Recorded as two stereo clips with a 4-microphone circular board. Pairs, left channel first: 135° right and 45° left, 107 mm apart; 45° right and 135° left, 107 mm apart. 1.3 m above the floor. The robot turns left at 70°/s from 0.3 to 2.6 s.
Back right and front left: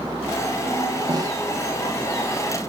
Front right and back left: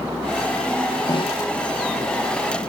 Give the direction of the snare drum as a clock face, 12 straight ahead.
12 o'clock.